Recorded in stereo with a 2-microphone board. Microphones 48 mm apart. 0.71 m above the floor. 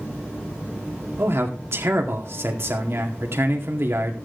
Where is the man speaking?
55° right (ahead or behind), 2.0 m.